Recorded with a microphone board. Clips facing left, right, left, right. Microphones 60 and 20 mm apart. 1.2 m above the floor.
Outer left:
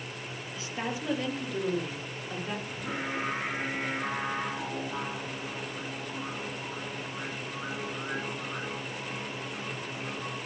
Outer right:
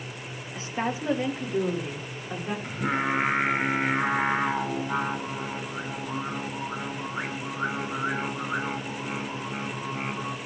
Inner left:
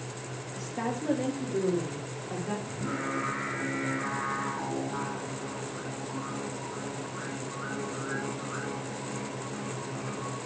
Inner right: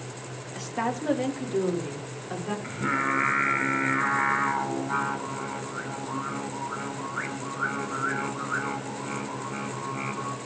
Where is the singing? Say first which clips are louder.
Outer right 8 dB, inner right 7 dB; 65° right (ahead or behind), 3 m.